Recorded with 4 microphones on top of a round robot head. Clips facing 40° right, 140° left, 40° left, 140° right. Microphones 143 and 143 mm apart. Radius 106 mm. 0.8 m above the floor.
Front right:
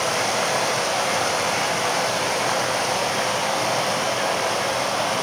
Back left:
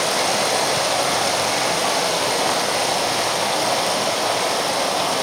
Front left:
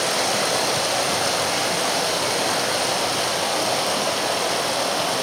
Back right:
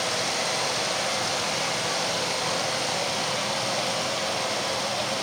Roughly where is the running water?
Left.